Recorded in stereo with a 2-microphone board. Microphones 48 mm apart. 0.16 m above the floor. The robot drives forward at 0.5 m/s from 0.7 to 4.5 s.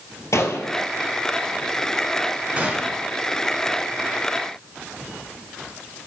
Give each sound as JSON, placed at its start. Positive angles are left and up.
{"t": 0.3, "sound": "a gunshot", "side_deg": 75, "distance_m": 1.1}
{"t": 2.6, "sound": "a gunshot", "side_deg": -20, "distance_m": 1.8}